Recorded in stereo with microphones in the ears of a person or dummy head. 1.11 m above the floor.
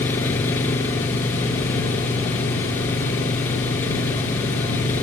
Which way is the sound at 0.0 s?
15° left (ahead or behind).